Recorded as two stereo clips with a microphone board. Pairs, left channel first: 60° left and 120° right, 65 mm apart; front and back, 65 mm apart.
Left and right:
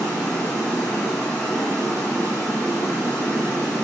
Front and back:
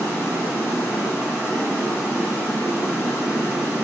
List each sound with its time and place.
0.0 s running water: 125° left, 1.7 m